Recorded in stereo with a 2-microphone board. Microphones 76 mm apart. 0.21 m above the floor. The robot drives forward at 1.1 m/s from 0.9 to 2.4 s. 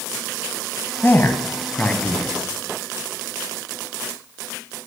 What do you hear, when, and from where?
1.0 s a man speaking: 25° left (ahead or behind), 1.0 m; by 2.3 s 15° left (ahead or behind), 1.7 m